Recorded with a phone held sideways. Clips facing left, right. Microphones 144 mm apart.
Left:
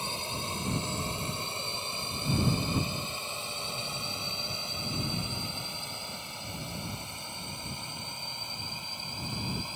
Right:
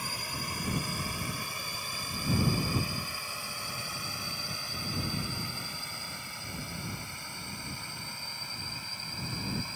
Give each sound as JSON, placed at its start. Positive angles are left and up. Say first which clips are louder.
{"t": 0.0, "sound": "a drone", "louder": "left 3 dB", "side_deg": 25}